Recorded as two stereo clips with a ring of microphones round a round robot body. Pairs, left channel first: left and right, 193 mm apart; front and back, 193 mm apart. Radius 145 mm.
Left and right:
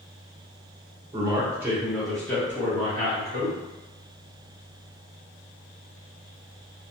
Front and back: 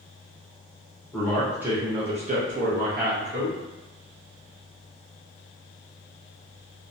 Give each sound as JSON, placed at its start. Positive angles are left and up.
{"t": 1.1, "sound": "a man speaking", "azimuth_deg": -60, "distance_m": 0.6}